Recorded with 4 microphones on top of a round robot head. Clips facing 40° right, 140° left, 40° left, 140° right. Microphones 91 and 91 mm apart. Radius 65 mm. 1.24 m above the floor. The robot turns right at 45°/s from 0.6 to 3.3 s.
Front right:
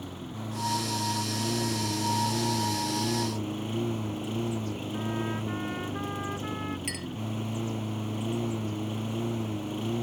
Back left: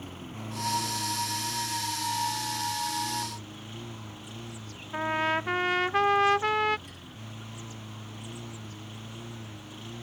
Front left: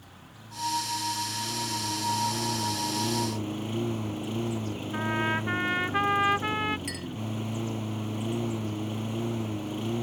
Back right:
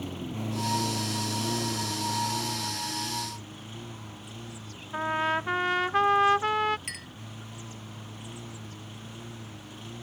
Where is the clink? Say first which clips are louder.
Front right 11 dB, front left 8 dB; 40° right.